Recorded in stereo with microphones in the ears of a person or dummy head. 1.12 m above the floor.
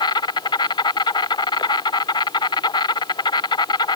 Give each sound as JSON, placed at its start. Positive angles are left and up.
{"t": 0.0, "sound": "an insect", "side_deg": 25}